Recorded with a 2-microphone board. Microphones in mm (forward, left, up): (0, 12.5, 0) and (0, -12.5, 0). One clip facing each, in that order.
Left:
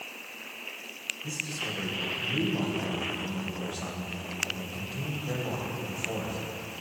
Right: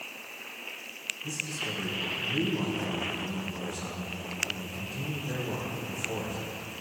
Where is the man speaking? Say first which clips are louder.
Even; 30° left (ahead or behind), 3 m.